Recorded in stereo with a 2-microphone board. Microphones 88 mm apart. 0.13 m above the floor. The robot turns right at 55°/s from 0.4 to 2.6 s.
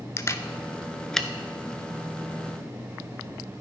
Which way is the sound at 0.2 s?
35° left (ahead or behind).